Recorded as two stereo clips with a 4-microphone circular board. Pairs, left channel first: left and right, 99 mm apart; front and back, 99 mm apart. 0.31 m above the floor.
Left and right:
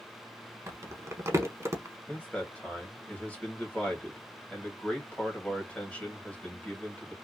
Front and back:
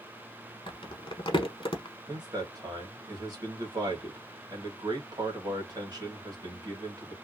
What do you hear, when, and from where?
0.7 s crumpling: 30° right, 0.8 m
2.1 s a man speaking: 160° left, 1.5 m